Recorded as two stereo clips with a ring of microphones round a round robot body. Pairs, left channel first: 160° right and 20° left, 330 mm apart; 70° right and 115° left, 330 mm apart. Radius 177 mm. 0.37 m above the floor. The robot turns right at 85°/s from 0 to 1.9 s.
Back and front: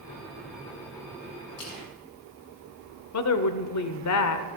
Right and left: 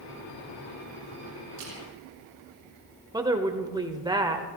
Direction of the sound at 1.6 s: 150° left.